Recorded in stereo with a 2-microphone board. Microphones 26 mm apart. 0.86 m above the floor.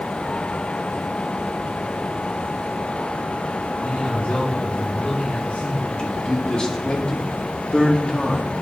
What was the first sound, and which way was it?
A man speaking, 75° left (ahead or behind).